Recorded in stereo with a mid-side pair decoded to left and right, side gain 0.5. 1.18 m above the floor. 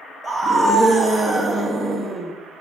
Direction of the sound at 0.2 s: 15° right.